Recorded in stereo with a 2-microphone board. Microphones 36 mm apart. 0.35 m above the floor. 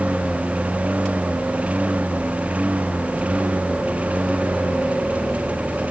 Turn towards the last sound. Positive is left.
turn(degrees=-35)  # may be behind; listen again after turning